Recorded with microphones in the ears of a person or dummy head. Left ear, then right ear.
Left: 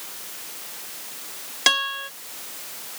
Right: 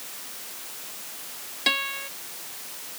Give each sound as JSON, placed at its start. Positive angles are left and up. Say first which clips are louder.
{"t": 1.7, "sound": "a guitar", "louder": "left 4 dB", "side_deg": 55}